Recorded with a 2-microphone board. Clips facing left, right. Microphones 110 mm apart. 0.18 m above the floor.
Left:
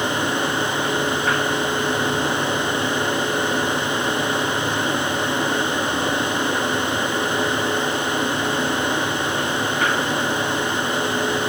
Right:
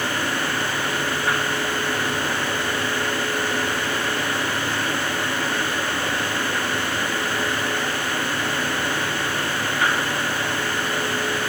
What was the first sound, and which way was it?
Only background noise.